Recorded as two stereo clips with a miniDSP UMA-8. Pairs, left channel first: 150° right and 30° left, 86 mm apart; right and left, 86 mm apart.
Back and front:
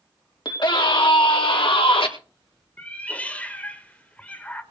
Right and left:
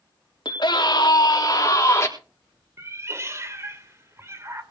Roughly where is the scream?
Behind right.